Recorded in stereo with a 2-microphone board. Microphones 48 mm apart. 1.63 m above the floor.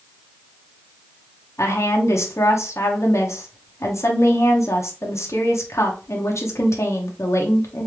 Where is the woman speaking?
80° left, 1.0 m.